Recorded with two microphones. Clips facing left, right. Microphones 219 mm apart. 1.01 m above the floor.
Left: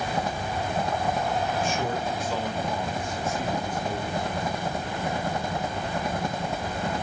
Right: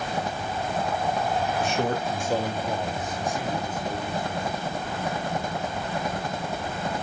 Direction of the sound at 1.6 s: 70° right (ahead or behind).